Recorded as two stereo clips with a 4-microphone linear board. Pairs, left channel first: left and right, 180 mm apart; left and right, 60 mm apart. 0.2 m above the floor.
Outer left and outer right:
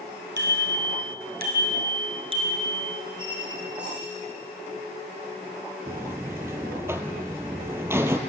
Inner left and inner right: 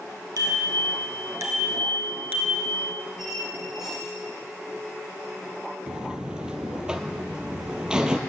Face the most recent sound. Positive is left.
turn(degrees=-15)  # may be behind; listen again after turning